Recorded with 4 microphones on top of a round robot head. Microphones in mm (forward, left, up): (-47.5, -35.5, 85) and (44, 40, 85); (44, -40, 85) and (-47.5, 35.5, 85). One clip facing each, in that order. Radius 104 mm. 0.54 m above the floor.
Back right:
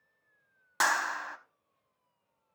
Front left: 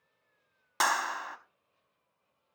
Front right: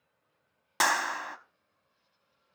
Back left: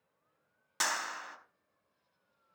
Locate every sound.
0.8 s a clap: 45° right, 1.3 m